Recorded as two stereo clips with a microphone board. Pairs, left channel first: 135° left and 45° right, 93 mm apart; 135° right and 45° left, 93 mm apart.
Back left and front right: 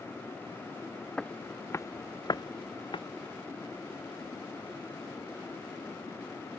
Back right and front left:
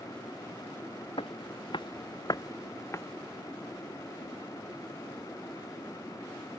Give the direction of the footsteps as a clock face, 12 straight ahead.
5 o'clock.